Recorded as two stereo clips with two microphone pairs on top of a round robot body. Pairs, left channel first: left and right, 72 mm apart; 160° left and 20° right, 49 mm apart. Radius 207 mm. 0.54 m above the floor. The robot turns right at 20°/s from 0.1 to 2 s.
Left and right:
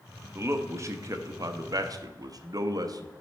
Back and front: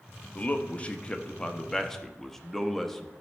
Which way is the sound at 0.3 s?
140° right.